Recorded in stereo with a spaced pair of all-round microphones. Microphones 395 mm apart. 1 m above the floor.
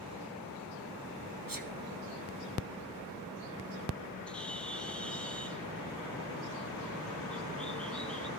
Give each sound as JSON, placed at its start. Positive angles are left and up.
{"t": 1.5, "sound": "a sneeze", "side_deg": -55, "distance_m": 1.0}
{"t": 4.3, "sound": "a bird", "side_deg": 0, "distance_m": 1.5}